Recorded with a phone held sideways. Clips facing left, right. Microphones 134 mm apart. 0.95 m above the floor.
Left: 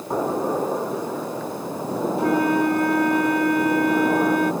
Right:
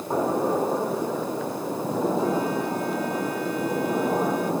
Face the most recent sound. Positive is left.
turn(degrees=75)  # may be behind; listen again after turning